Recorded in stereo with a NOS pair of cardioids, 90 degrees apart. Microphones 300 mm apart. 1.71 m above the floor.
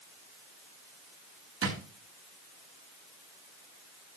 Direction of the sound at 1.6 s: 50° right.